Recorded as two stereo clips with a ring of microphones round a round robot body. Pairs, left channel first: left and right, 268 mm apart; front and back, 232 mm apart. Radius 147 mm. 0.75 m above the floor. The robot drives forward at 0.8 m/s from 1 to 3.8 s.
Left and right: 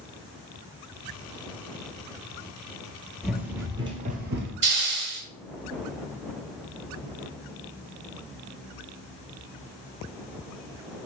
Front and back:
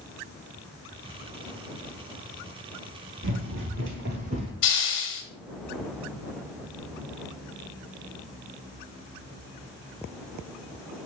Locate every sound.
3.2 s running footsteps: straight behind, 1.0 m; by 4.5 s 110° right, 0.9 m
4.6 s a hiss: 45° right, 1.3 m